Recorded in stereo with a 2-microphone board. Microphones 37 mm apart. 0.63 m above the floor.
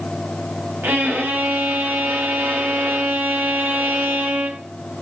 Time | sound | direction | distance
0.8 | a violin | 70° right (ahead or behind) | 4 m